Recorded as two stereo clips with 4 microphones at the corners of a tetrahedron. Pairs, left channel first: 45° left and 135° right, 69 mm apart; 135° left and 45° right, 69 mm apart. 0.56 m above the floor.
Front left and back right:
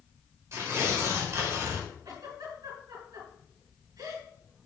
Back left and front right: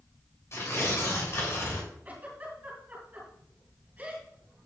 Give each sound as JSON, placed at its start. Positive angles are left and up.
{"t": 0.5, "sound": "tearing paper", "azimuth_deg": 180, "distance_m": 2.0}
{"t": 2.0, "sound": "a giggle", "azimuth_deg": -110, "distance_m": 4.0}